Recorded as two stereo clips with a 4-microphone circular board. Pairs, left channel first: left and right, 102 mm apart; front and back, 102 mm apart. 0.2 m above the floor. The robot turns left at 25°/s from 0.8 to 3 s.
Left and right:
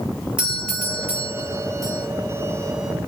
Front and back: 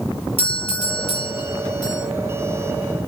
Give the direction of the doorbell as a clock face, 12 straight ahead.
12 o'clock.